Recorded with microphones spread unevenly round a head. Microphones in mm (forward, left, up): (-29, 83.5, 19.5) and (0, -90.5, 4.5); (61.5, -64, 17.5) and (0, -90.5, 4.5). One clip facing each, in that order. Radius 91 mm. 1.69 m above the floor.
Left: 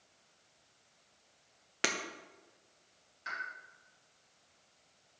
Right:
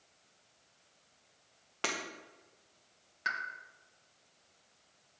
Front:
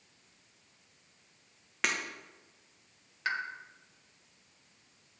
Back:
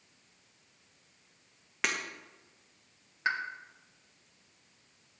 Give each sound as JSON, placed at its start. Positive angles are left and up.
{"t": 1.8, "sound": "breaking glass", "azimuth_deg": 90, "distance_m": 0.8}
{"t": 3.2, "sound": "a pop", "azimuth_deg": -90, "distance_m": 1.4}